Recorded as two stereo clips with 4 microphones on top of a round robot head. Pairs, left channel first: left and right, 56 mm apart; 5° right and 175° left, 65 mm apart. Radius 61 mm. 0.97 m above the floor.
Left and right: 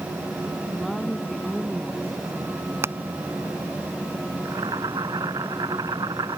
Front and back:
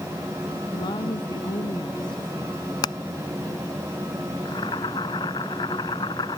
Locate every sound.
0.7 s a woman speaking: straight ahead
2.8 s hammering: 35° right
4.5 s boiling: 45° right